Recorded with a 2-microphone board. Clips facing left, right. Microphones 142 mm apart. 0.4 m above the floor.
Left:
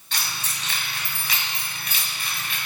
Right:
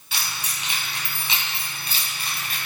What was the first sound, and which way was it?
Keys jangling, 10° right (ahead or behind).